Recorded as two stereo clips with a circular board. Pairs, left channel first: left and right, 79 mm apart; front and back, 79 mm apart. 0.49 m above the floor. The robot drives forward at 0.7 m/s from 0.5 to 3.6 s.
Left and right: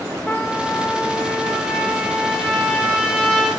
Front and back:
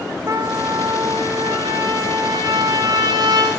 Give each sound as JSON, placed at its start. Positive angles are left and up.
{"t": 0.3, "sound": "a trumpet", "azimuth_deg": 150, "distance_m": 0.6}